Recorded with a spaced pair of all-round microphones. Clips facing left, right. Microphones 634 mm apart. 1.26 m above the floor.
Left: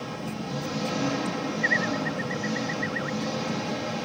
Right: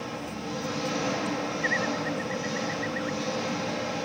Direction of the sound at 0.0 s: 60° left (ahead or behind).